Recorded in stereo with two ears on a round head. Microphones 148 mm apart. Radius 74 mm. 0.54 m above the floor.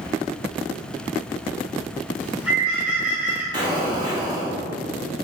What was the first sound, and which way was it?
A bird, 10° right (ahead or behind).